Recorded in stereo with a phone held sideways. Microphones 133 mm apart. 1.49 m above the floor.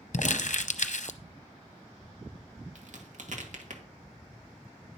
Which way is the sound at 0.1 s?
65° left (ahead or behind).